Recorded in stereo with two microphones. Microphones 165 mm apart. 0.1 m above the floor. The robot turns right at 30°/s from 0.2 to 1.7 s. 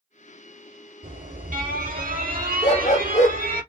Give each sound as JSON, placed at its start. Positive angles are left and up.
{"t": 1.0, "sound": "an alarm", "side_deg": -50, "distance_m": 3.0}
{"t": 2.6, "sound": "a dog barking", "side_deg": 45, "distance_m": 0.9}